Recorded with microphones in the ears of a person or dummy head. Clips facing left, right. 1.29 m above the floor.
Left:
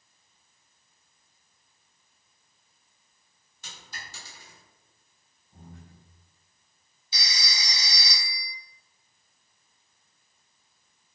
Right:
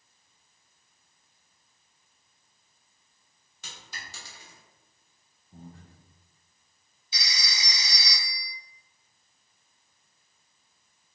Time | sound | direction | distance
3.6 | a dropped coin | 60° right (ahead or behind) | 1.5 m
5.5 | breathing | 35° right (ahead or behind) | 0.8 m
7.1 | a phone ringing | 35° left (ahead or behind) | 0.8 m